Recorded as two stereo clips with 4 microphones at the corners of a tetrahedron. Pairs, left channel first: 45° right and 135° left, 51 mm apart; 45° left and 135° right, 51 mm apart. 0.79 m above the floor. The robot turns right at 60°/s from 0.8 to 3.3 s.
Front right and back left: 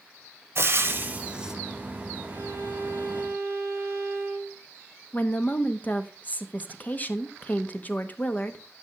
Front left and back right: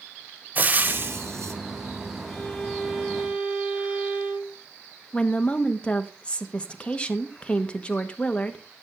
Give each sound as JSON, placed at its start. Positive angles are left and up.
{"t": 0.6, "sound": "frying", "azimuth_deg": 170, "distance_m": 1.1}
{"t": 2.3, "sound": "a violin", "azimuth_deg": 110, "distance_m": 3.5}
{"t": 5.1, "sound": "a woman speaking", "azimuth_deg": -10, "distance_m": 1.0}